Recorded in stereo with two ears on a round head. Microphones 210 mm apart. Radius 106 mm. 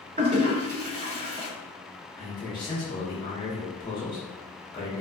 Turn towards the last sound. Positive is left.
turn(degrees=20)  # may be behind; listen again after turning